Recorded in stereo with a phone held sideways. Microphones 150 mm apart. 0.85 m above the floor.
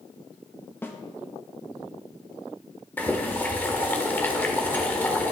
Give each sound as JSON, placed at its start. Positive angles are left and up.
{"t": 0.8, "sound": "a snare drum", "side_deg": 15, "distance_m": 1.1}
{"t": 3.0, "sound": "boiling", "side_deg": 10, "distance_m": 1.4}